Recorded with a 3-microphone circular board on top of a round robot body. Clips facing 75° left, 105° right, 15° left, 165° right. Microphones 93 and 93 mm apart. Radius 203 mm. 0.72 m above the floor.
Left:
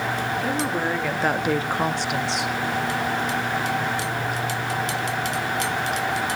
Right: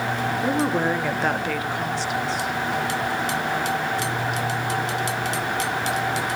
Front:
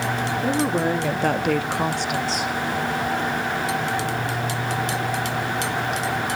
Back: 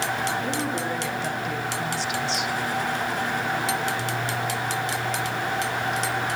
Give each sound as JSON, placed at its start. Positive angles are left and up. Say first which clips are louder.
{"t": 0.4, "sound": "a woman speaking", "louder": "right 6 dB, front 6 dB", "azimuth_deg": -45, "distance_m": 2.0}